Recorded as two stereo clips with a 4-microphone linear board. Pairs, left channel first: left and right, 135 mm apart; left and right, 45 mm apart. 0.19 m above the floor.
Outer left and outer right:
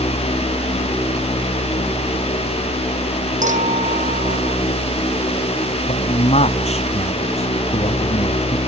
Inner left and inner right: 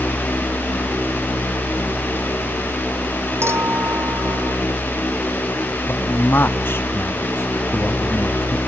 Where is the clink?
80° right.